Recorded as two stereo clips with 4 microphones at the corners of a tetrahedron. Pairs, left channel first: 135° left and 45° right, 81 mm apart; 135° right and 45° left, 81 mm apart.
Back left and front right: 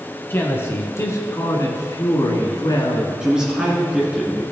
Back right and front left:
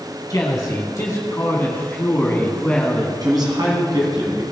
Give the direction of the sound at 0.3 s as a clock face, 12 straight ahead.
6 o'clock.